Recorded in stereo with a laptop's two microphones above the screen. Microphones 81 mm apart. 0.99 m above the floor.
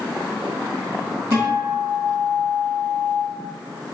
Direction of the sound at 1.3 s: 35° right (ahead or behind).